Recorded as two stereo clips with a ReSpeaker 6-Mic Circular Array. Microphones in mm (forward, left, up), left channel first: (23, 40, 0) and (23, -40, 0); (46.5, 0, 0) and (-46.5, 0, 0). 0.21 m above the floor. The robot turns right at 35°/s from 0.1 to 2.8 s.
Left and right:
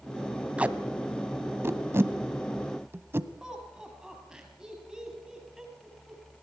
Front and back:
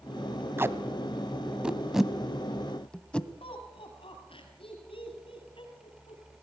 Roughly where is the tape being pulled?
Behind right.